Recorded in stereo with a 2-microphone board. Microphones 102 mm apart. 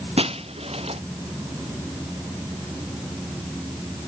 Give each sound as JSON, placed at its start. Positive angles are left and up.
{"t": 0.2, "sound": "breaking glass", "side_deg": -80}